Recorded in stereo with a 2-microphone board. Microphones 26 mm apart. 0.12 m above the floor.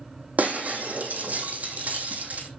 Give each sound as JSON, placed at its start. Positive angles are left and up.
{"t": 0.4, "sound": "breaking glass", "side_deg": -70, "distance_m": 2.5}